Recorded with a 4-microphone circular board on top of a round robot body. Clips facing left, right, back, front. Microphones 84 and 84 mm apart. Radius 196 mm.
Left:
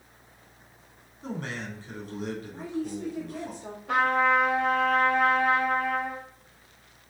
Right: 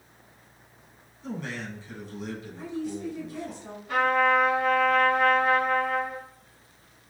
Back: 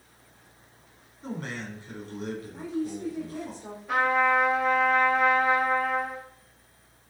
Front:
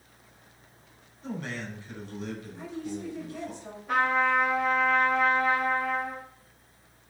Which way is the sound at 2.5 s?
130° left.